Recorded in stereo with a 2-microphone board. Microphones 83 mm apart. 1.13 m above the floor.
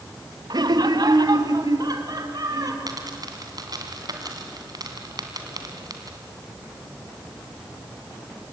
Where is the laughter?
60° right (ahead or behind), 1.2 m; by 2.8 s 50° right (ahead or behind), 3.5 m.